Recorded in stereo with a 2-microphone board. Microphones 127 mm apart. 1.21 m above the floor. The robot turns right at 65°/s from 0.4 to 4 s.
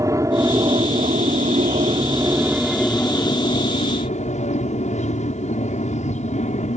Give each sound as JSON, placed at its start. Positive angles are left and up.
{"t": 0.0, "sound": "an aircraft", "azimuth_deg": -150}